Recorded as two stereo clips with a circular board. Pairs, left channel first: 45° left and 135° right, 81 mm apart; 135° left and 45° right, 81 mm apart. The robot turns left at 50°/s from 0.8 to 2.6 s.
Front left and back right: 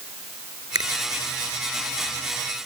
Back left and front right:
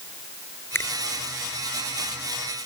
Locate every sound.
0.8 s a finger snap: 165° right; by 0.9 s 170° right